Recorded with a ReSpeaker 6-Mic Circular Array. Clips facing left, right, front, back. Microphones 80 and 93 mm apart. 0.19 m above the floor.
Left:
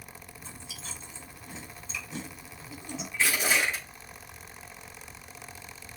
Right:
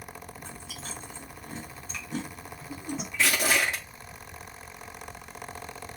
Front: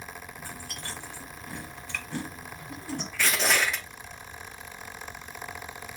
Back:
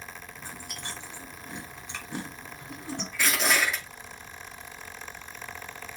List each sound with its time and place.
0.4 s chewing: 115° right, 4 m
3.1 s crushing: 95° right, 5.5 m